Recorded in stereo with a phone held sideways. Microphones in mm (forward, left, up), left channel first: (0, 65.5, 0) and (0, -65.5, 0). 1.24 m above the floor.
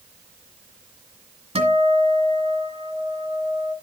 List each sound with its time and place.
1.6 s a guitar: 55° right (ahead or behind), 1.9 m